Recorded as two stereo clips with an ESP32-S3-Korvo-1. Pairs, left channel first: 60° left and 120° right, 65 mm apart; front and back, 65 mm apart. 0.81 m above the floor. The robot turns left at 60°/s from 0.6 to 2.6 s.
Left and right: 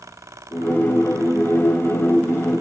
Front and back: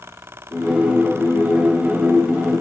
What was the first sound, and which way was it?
Only background noise.